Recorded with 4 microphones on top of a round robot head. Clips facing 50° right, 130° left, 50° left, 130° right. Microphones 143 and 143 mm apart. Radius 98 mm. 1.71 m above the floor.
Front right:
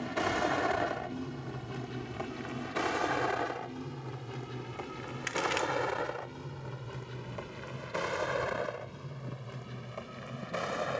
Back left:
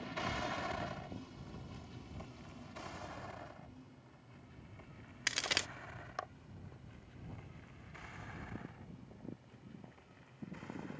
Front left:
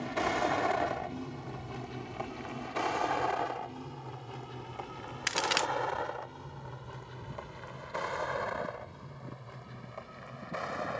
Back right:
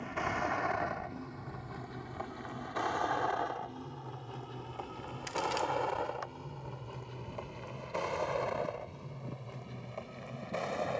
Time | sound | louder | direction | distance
0.0 | a vehicle | front right 10 dB, front left 5 dB | 10° right | ?
5.3 | a crack | front right 11 dB, front left 1 dB | 75° left | ?